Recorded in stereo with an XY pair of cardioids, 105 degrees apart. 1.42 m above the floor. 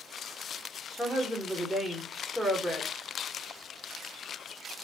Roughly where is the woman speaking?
Ahead.